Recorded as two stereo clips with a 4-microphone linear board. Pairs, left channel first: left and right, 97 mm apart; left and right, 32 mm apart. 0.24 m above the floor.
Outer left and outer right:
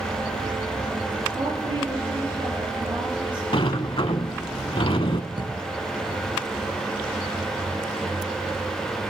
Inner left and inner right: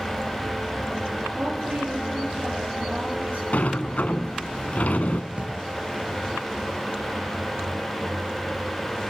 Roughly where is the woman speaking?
Right.